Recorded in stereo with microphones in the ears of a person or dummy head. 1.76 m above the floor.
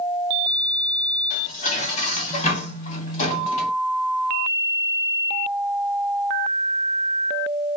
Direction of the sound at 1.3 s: 35° left (ahead or behind).